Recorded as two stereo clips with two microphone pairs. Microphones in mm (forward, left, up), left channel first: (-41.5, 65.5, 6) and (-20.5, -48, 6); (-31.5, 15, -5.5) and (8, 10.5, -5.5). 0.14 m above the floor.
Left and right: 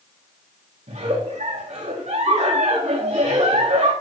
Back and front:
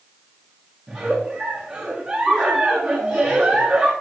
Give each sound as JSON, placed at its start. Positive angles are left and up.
{"t": 0.9, "sound": "a giggle", "azimuth_deg": -70, "distance_m": 4.5}